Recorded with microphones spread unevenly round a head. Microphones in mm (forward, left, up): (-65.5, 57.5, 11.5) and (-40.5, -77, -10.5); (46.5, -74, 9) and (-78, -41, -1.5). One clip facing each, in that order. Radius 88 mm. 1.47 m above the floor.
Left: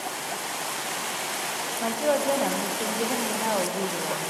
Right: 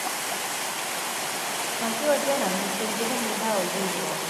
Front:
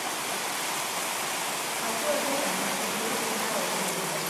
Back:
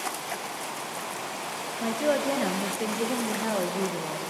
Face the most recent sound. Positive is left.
turn(degrees=-175)